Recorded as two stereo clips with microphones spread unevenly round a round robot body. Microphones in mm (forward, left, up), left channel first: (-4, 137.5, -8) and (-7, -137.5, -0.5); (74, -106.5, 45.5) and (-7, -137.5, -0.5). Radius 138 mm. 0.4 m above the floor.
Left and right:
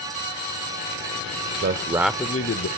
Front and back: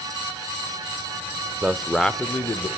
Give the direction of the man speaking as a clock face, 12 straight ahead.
4 o'clock.